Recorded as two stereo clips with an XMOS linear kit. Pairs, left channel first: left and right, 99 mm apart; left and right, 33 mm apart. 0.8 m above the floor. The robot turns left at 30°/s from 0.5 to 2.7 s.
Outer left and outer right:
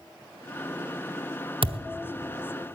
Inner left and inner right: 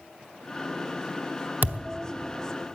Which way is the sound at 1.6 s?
65° right (ahead or behind).